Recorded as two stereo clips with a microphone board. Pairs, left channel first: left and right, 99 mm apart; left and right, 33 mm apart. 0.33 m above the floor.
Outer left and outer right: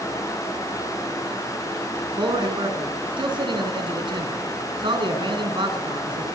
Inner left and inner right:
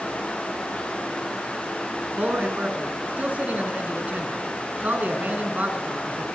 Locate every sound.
2.2 s a man speaking: 55° right (ahead or behind), 5 m